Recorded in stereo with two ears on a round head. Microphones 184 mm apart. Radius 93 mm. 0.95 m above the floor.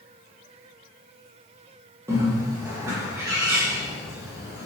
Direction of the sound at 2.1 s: 15° right (ahead or behind).